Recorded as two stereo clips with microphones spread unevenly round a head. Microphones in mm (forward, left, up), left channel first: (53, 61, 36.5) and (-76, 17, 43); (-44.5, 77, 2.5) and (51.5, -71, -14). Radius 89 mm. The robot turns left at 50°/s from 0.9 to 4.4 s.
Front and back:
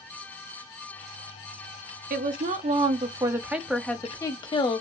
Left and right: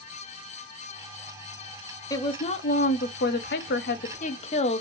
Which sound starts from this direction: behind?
A woman speaking, at 2.1 s.